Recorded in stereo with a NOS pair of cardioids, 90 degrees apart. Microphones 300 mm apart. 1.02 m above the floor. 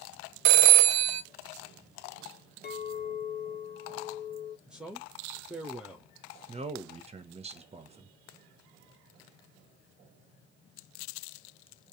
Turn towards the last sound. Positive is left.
turn(degrees=-20)